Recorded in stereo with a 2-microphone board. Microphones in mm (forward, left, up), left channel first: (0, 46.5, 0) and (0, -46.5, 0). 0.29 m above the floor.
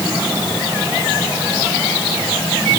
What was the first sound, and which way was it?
Only background noise.